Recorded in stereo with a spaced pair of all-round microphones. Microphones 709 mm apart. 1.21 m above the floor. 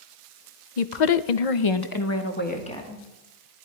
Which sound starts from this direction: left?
A woman speaking, at 0.8 s.